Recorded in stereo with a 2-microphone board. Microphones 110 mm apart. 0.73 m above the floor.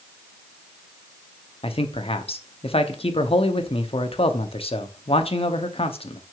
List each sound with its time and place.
1.6 s a man speaking: 60° left (ahead or behind), 0.9 m